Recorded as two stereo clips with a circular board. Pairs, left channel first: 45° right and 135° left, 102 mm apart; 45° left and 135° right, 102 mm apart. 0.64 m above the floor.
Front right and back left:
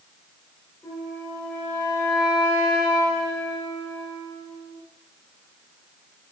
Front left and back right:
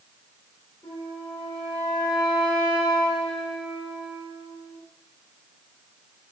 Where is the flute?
20° left, 2.5 m.